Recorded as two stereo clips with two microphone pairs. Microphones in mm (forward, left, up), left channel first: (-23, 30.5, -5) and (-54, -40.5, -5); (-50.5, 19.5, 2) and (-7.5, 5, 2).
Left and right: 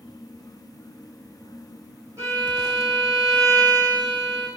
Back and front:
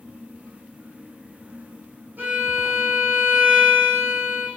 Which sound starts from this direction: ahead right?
A violin, at 2.2 s.